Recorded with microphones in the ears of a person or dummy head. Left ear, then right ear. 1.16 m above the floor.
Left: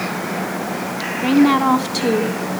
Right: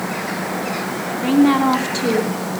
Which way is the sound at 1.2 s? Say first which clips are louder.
Left 1 dB; 10° left (ahead or behind).